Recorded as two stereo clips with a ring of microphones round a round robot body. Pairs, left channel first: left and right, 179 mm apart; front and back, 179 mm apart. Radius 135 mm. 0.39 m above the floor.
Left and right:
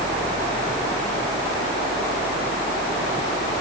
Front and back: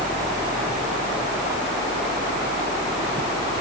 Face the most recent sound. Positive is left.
No sound to turn to.